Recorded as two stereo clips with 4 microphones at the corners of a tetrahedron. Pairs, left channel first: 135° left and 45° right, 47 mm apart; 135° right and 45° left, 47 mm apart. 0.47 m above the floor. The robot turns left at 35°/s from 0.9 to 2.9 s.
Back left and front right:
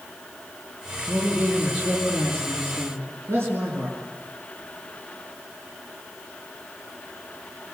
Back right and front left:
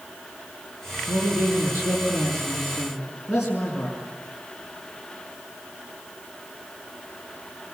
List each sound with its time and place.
1.1 s a man speaking: 25° left, 5.5 m; by 4.0 s 40° right, 5.5 m